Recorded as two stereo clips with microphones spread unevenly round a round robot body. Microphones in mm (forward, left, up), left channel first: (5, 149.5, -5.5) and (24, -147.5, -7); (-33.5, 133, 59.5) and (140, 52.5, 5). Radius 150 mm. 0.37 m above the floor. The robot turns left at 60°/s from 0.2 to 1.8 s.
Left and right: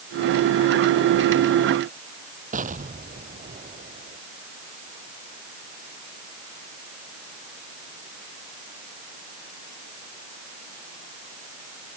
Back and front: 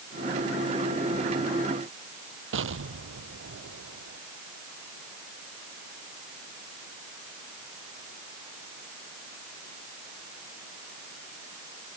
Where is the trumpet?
No trumpet in this recording.